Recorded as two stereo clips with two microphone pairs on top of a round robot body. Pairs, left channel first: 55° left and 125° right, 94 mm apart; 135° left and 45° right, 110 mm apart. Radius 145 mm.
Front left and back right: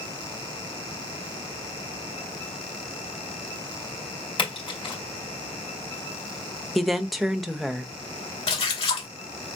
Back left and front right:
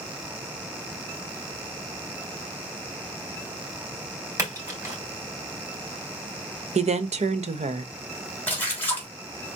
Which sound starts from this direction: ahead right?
A woman speaking, at 6.8 s.